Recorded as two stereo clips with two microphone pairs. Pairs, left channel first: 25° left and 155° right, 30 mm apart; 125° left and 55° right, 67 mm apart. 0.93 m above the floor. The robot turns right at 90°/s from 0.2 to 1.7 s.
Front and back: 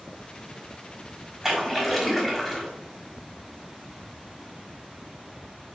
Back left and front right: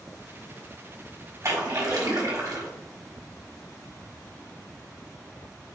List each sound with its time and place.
1.4 s a splash: 85° right, 1.3 m; by 2.7 s 60° right, 1.3 m